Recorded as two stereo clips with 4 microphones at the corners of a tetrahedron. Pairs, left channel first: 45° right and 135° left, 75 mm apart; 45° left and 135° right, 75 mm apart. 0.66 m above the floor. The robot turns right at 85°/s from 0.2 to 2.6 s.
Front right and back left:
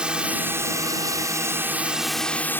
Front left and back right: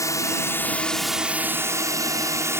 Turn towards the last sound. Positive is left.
turn(degrees=-95)